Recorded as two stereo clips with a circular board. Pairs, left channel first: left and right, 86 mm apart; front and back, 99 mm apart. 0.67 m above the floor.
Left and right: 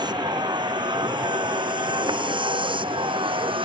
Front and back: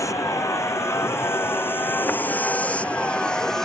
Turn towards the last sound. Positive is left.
turn(degrees=-85)